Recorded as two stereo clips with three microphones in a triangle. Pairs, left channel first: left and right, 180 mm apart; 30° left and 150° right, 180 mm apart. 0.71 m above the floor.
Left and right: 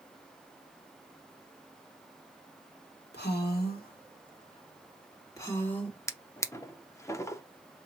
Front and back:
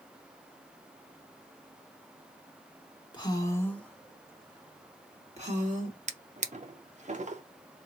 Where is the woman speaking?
90° left, 1.4 m; by 6.0 s 175° left, 1.6 m.